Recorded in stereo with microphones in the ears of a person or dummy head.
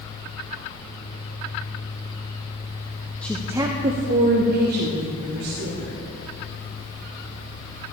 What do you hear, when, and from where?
3.2 s a woman speaking: 10° left (ahead or behind), 0.6 m; by 6.0 s 75° right (ahead or behind), 2 m